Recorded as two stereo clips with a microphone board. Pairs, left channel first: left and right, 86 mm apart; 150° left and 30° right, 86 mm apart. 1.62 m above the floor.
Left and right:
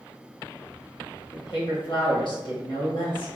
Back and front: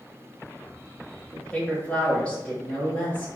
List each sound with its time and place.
1.3 s a woman speaking: 75° left, 1.2 m